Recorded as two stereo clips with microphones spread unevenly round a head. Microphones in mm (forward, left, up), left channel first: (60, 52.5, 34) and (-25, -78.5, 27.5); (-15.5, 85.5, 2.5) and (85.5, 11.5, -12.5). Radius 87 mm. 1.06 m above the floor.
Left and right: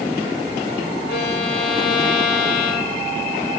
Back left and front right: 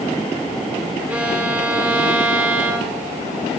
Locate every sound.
1.1 s a violin: 40° left, 3 m